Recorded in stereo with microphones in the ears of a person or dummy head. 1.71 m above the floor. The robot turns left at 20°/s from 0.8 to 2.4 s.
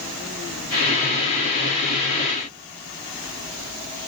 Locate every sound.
Only background noise.